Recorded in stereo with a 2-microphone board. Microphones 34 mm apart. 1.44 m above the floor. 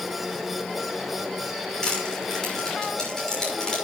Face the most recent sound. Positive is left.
turn(degrees=20)  # may be behind; listen again after turning